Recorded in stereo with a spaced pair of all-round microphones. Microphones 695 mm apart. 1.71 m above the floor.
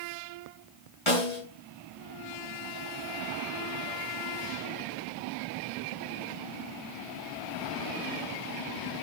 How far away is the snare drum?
About 6.5 m.